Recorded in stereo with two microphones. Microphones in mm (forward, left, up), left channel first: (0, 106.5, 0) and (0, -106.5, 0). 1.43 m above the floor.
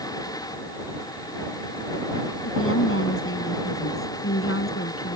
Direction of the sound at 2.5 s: 85° left.